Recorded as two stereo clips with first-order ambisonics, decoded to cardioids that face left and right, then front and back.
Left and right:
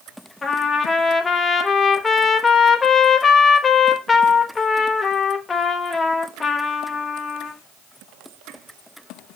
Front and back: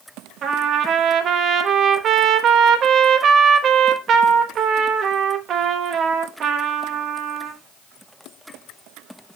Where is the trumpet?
155° left, 0.9 m.